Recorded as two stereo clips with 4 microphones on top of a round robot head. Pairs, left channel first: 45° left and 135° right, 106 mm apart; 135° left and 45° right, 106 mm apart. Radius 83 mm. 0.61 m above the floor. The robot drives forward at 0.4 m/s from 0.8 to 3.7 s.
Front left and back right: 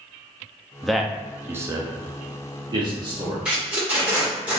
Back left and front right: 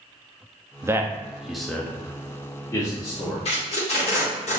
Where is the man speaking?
40° right, 0.5 m; by 3.4 s 170° right, 1.0 m.